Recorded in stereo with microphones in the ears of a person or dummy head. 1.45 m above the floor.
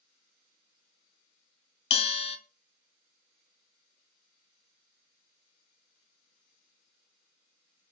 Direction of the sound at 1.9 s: 35° left (ahead or behind).